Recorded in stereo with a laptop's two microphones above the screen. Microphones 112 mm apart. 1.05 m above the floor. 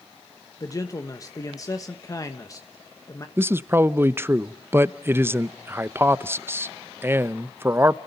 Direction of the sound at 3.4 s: 20° right (ahead or behind).